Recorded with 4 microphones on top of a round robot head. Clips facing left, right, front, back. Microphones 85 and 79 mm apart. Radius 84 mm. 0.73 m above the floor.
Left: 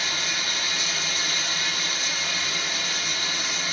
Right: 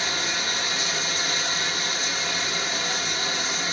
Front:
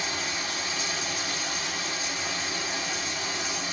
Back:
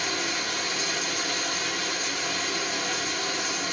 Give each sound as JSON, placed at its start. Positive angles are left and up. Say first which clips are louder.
{"t": 0.0, "sound": "running water", "louder": "right 2 dB, back 2 dB", "azimuth_deg": -150, "distance_m": 1.2}